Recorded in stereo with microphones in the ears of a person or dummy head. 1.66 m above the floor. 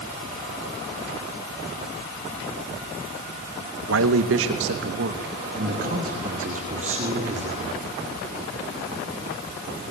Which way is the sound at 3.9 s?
85° right.